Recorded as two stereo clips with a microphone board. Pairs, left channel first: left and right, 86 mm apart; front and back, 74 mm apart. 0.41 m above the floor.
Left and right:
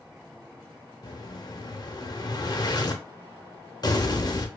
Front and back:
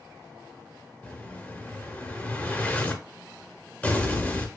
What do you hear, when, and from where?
1.0 s an explosion: 65° left, 0.6 m